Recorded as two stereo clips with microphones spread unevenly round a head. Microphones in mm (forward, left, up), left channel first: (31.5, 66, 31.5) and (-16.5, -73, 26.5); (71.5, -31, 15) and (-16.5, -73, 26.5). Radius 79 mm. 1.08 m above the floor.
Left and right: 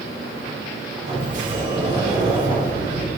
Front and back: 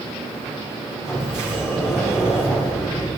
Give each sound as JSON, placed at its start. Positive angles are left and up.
{"t": 1.1, "sound": "a sliding door", "azimuth_deg": -70, "distance_m": 3.5}